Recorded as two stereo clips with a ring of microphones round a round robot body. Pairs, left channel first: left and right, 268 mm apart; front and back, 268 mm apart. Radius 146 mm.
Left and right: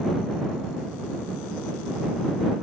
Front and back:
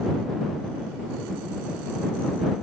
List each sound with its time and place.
Only background noise.